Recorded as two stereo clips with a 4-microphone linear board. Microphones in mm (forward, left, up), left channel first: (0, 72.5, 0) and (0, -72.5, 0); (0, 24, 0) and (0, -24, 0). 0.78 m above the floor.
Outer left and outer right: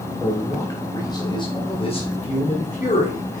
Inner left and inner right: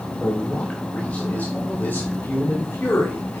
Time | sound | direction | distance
0.2 | a man speaking | 15° left (ahead or behind) | 3.5 m